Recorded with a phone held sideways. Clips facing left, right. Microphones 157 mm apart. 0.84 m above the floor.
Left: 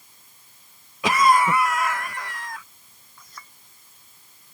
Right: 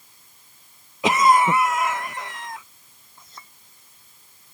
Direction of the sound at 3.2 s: 25° right (ahead or behind).